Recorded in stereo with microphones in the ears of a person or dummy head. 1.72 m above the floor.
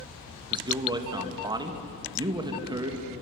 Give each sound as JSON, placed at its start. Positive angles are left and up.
{"t": 0.5, "sound": "a man speaking", "side_deg": -25, "distance_m": 2.5}